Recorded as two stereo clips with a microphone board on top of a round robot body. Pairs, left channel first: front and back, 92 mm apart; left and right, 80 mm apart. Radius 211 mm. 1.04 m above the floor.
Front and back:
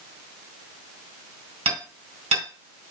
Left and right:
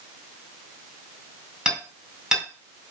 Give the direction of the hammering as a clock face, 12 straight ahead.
6 o'clock.